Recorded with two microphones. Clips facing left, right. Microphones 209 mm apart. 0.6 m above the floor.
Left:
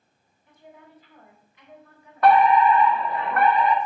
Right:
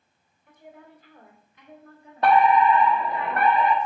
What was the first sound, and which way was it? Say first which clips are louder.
A woman speaking: right 2 dB; 65° right (ahead or behind).